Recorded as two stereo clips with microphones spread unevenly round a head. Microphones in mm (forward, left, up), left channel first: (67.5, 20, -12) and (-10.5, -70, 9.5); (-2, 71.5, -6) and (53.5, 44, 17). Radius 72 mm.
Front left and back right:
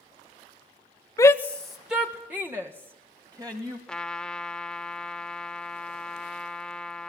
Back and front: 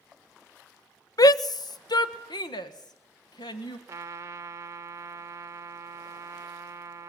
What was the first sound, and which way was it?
A shout, 120° left.